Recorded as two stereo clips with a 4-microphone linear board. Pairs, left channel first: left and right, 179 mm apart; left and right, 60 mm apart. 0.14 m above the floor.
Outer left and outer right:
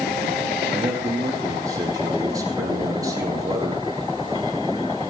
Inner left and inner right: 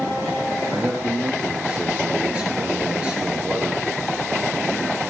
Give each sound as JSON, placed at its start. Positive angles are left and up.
{"t": 0.7, "sound": "a man speaking", "side_deg": -20, "distance_m": 5.5}